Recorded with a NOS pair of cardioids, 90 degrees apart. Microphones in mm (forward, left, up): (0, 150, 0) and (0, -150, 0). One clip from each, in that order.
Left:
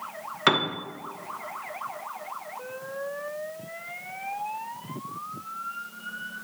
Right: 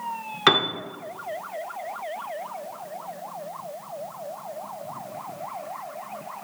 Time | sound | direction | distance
0.5 | a piano | 5° right | 0.6 m